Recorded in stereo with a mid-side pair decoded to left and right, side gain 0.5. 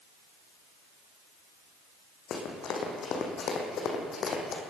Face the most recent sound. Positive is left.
turn(degrees=55)